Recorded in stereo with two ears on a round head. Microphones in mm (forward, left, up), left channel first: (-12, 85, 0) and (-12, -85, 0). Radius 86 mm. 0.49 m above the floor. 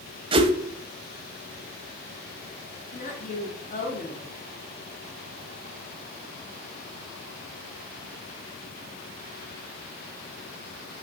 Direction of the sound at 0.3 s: 30° right (ahead or behind).